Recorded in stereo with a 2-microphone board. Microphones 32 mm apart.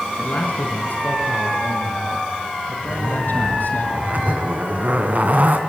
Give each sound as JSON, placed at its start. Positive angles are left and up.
{"t": 0.2, "sound": "a man speaking", "side_deg": 55, "distance_m": 3.5}
{"t": 2.9, "sound": "a zipper", "side_deg": -50, "distance_m": 2.5}